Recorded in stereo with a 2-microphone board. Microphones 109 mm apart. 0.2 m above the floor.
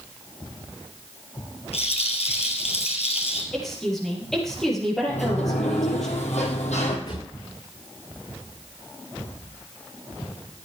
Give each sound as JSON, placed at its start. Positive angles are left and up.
{"t": 1.7, "sound": "a rattle", "side_deg": 65, "distance_m": 2.5}
{"t": 3.5, "sound": "a woman speaking", "side_deg": 5, "distance_m": 6.0}
{"t": 5.1, "sound": "a sliding door", "side_deg": 80, "distance_m": 2.5}
{"t": 7.1, "sound": "a drawer", "side_deg": 60, "distance_m": 7.0}